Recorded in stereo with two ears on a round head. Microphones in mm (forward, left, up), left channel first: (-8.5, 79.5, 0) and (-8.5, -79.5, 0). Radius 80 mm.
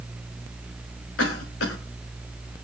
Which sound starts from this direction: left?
A cough, at 1.2 s.